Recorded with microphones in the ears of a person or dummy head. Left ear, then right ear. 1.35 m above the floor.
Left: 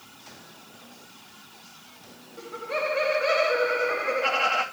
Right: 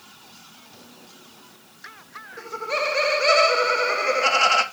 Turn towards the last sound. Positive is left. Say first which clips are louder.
# right 4 dB
turn(degrees=-85)